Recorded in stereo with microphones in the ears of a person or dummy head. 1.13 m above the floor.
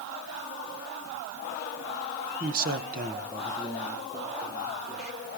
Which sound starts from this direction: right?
A man speaking, at 2.4 s.